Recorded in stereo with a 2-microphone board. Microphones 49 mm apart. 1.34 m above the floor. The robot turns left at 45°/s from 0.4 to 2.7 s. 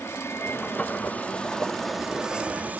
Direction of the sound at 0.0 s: 70° left.